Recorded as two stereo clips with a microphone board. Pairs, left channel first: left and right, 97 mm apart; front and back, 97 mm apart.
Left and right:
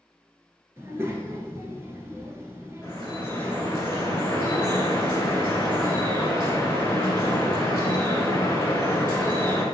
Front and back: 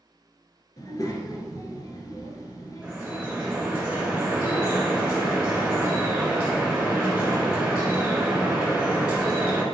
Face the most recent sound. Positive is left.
turn(degrees=115)